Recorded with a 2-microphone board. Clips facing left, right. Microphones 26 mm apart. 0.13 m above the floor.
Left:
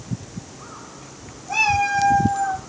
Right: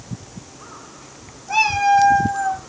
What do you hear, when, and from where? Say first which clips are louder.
1.5 s a cat meowing: right 3 dB; 25° right (ahead or behind), 2.5 m; by 2.6 s 30° right (ahead or behind), 3 m